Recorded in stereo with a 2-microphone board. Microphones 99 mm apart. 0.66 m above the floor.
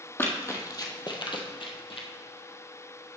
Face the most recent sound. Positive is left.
turn(degrees=65)  # may be behind; listen again after turning